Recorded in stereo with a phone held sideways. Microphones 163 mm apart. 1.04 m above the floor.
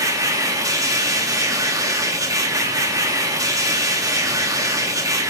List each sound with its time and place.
0.0 s a machine running: 20° right (ahead or behind), 0.7 m